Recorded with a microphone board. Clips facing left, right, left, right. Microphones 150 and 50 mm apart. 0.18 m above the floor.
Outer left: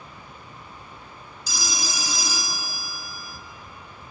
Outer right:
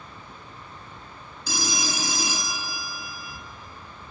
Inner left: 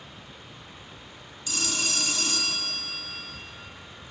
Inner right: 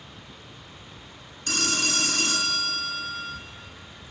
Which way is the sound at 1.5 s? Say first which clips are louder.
Outer right 4 dB, inner right 4 dB; 55° right (ahead or behind).